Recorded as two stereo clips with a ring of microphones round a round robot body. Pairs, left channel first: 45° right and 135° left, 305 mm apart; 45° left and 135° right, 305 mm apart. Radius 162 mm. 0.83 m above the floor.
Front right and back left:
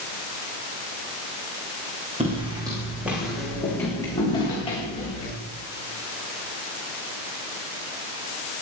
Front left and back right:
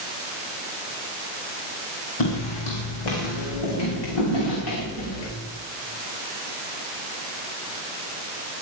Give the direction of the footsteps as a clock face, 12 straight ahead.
10 o'clock.